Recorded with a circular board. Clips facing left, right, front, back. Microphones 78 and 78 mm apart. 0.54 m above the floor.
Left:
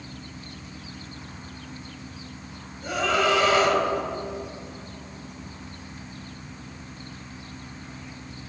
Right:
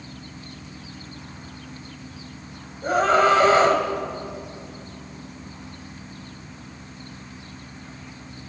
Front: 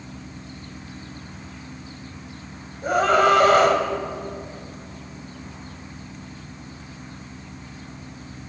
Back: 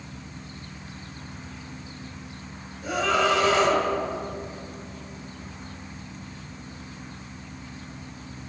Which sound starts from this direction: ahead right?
A scream, at 2.8 s.